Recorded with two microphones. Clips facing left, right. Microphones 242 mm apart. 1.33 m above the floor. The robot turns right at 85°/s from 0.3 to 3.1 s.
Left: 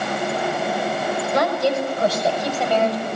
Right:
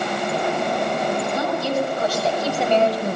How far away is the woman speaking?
About 6 m.